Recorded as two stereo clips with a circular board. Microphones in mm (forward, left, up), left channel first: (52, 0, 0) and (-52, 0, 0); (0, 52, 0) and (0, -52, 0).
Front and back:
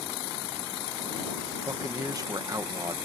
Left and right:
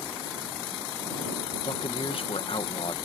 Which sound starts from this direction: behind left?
A man speaking, at 1.6 s.